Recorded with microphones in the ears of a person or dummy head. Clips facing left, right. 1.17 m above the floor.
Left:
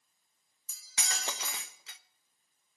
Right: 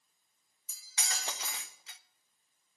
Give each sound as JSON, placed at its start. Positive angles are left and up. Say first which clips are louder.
{"t": 0.7, "sound": "cutlery clinking", "louder": "left 1 dB", "side_deg": 50, "distance_m": 0.6}